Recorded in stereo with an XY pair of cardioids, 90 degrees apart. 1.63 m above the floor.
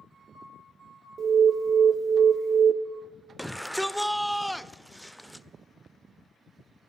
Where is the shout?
5° right, 0.5 m.